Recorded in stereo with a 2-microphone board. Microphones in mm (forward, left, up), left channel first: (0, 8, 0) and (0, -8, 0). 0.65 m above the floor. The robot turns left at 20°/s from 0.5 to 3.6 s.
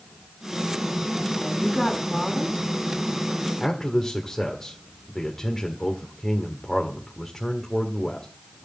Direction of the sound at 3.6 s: 20° left (ahead or behind).